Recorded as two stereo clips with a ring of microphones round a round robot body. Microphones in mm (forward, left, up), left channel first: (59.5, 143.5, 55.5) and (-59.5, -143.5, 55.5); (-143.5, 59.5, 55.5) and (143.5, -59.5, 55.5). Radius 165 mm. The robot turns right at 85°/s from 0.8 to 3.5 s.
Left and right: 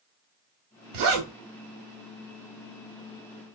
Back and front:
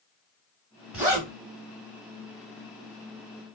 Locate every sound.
0.9 s a zipper: 110° right, 0.9 m; by 1.3 s 80° right, 0.9 m